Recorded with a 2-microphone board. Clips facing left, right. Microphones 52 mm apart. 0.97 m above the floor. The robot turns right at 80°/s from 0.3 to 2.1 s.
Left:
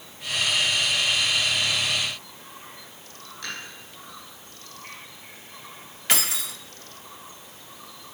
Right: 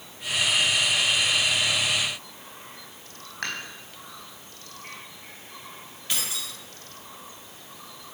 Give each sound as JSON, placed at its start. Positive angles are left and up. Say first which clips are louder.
{"t": 3.4, "sound": "dishes clattering", "louder": "right 4 dB", "side_deg": -60, "distance_m": 5.0}
{"t": 6.1, "sound": "keys jangling", "louder": "left 6 dB", "side_deg": 75, "distance_m": 1.1}